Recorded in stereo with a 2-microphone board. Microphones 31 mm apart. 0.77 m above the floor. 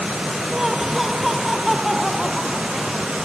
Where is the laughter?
10° right (ahead or behind); by 3.1 s 5° right (ahead or behind).